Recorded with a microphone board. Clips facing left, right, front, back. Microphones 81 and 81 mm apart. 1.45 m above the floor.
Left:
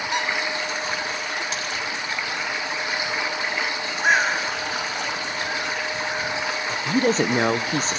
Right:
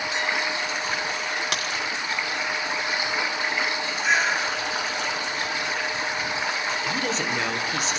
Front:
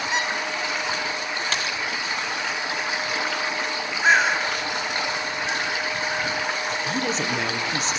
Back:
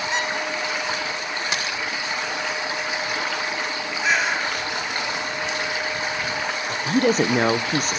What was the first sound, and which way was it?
A squeak, 85° left.